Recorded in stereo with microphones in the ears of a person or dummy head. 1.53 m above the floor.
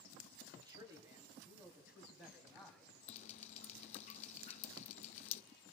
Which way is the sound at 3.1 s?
35° left (ahead or behind).